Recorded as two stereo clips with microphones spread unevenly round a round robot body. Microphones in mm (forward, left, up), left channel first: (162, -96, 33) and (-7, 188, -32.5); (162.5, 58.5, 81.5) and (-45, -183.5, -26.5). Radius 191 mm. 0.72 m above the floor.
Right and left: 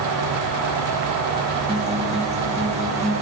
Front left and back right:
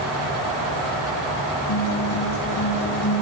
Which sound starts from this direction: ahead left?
A guitar, at 1.7 s.